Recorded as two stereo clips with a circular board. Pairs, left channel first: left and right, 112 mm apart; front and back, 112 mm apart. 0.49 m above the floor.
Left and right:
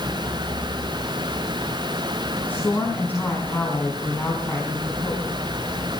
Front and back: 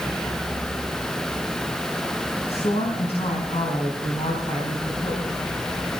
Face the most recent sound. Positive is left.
turn(degrees=15)